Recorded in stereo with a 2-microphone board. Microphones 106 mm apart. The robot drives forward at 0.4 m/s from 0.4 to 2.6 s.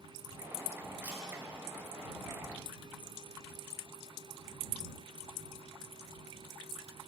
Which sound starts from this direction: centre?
A camera shutter, at 1.0 s.